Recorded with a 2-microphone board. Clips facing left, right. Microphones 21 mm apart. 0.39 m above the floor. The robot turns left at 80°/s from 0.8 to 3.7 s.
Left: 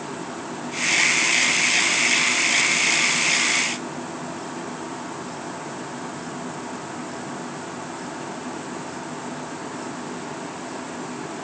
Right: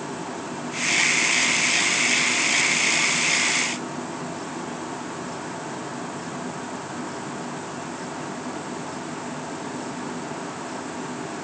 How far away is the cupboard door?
I don't hear a cupboard door.